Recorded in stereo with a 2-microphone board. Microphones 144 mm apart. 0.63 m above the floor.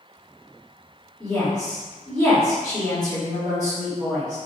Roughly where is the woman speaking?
Left.